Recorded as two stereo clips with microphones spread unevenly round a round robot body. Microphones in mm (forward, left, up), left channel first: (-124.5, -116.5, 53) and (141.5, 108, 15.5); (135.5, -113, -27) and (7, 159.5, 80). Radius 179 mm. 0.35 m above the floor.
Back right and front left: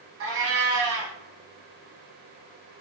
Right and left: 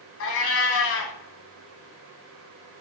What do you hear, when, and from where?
0.2 s a cat meowing: 15° right, 0.6 m